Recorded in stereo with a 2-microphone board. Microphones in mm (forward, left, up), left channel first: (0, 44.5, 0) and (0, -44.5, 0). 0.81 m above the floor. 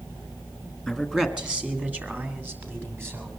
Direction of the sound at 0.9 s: 5° left (ahead or behind).